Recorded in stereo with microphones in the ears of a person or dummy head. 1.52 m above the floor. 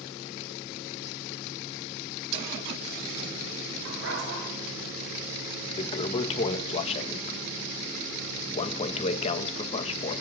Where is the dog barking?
75° right (ahead or behind), 8.5 m.